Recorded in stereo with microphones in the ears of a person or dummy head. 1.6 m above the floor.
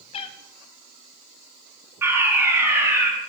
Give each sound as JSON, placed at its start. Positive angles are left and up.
{"t": 0.1, "sound": "a cat meowing", "side_deg": 35, "distance_m": 1.5}
{"t": 2.0, "sound": "a fire alarm", "side_deg": -15, "distance_m": 4.5}